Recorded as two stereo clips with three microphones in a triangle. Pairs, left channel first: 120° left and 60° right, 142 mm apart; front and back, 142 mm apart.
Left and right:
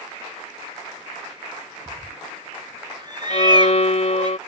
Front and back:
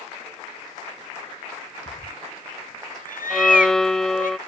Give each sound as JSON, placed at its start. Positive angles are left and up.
{"t": 1.9, "sound": "a cat meowing", "azimuth_deg": 0}
{"t": 3.3, "sound": "a violin", "azimuth_deg": 85}